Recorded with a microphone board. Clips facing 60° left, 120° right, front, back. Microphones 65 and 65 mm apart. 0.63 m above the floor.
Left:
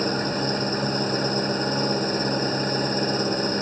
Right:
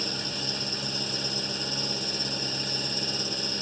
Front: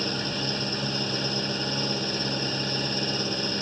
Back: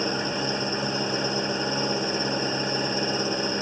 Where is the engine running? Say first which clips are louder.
Left 11 dB, back 3 dB; 110° left.